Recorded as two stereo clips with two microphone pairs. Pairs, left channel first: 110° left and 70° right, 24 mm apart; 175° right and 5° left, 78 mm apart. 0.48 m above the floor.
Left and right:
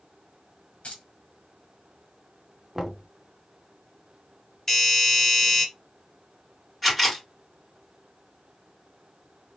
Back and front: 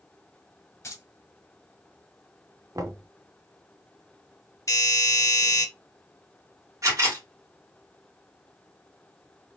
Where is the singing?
I don't hear singing.